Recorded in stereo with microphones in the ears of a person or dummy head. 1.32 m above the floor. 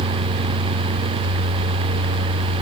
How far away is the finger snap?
I don't hear a finger snap.